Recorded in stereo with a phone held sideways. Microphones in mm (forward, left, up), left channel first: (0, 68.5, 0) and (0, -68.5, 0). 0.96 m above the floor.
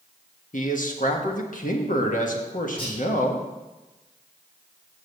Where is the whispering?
40° left (ahead or behind), 2 m.